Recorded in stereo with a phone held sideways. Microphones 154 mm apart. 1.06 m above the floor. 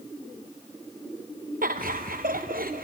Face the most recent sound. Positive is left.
turn(degrees=-70)  # may be behind; listen again after turning